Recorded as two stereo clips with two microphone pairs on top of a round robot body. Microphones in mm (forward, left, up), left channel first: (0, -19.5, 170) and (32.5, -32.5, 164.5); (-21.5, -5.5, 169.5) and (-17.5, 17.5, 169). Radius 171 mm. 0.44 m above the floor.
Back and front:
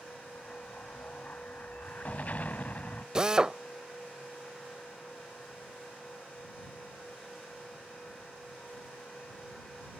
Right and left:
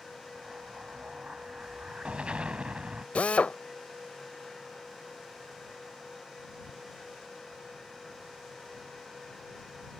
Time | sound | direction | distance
0.3 | an explosion | 110° left | ?
3.1 | a drill | 90° right | ?